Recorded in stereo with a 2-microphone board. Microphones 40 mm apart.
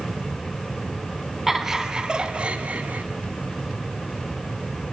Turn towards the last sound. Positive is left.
turn(degrees=-45)  # may be behind; listen again after turning